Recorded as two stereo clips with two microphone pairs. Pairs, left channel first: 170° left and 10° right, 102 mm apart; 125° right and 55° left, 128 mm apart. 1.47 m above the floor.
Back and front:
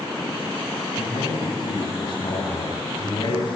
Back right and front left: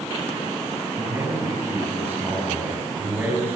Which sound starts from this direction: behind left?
A man speaking, at 1.0 s.